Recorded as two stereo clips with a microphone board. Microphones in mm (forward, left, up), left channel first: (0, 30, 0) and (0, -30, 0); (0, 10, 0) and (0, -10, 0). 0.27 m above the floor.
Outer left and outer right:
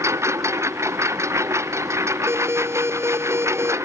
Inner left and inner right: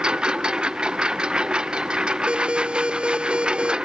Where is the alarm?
45° right (ahead or behind).